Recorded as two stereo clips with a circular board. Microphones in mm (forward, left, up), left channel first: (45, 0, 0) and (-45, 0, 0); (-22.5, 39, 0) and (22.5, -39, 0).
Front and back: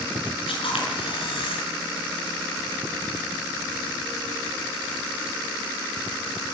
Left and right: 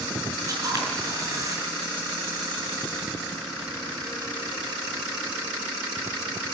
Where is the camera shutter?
10° right, 6 m.